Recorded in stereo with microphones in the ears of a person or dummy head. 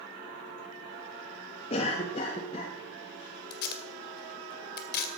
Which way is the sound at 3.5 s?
55° left (ahead or behind).